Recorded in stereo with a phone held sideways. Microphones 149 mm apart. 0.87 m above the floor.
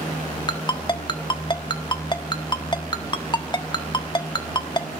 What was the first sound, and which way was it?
A ringtone, 30° left (ahead or behind).